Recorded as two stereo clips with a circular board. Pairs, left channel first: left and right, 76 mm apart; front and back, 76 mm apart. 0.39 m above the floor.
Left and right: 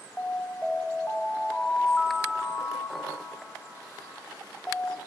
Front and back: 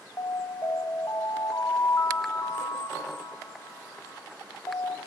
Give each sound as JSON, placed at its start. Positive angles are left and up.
{"t": 0.2, "sound": "an alarm", "azimuth_deg": 20, "distance_m": 1.1}